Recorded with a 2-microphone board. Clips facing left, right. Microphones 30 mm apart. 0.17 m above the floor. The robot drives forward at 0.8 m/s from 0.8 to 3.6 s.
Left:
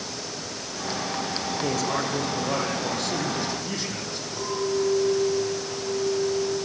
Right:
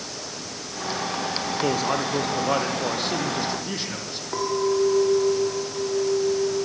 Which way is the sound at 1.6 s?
30° right (ahead or behind).